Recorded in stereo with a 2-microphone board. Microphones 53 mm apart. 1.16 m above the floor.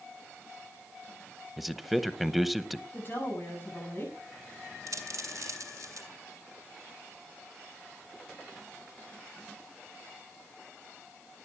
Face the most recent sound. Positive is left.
turn(degrees=-80)